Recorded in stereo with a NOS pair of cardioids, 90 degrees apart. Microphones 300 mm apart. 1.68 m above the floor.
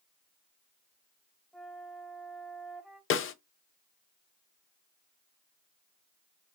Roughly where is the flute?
Ahead.